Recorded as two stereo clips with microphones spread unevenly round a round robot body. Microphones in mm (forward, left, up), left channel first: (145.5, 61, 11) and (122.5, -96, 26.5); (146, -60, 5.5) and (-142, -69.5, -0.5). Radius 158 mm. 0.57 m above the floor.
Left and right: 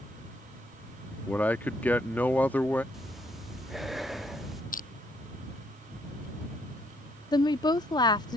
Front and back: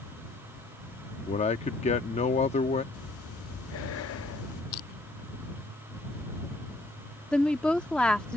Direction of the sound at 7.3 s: 85° left.